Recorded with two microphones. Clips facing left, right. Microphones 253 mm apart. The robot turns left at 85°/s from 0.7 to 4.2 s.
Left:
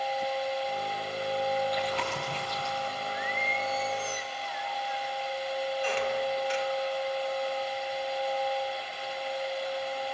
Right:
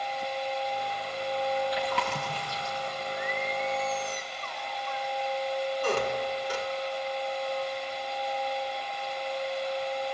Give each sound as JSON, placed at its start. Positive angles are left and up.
{"t": 1.7, "sound": "chewing", "side_deg": -85, "distance_m": 6.5}
{"t": 3.1, "sound": "singing", "side_deg": 20, "distance_m": 1.7}
{"t": 5.8, "sound": "a squeak", "side_deg": -50, "distance_m": 1.5}